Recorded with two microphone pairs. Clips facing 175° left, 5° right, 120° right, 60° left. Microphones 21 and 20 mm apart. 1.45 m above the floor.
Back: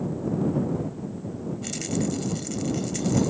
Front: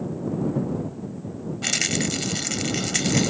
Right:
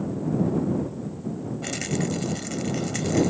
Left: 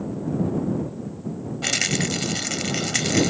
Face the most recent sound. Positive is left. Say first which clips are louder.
# front 6 dB, left 6 dB
turn(degrees=45)